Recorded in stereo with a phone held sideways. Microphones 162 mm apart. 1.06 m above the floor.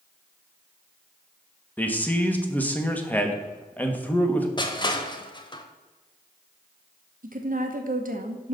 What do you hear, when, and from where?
1.8 s a man speaking: 10° left (ahead or behind), 1.3 m
4.6 s crushing: 30° left (ahead or behind), 1.0 m
7.2 s a woman speaking: 60° right (ahead or behind), 1.0 m